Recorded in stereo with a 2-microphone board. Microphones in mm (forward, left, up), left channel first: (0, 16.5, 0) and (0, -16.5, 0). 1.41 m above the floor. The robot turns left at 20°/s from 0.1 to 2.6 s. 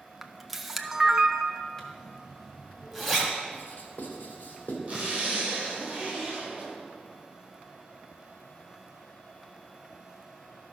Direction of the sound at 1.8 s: 10° left (ahead or behind).